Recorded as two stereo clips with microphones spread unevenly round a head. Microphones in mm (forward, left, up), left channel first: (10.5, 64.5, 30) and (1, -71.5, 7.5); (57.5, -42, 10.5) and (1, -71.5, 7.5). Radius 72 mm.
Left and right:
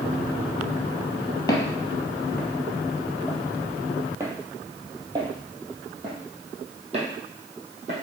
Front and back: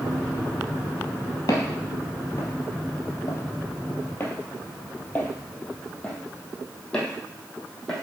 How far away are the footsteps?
About 1.9 m.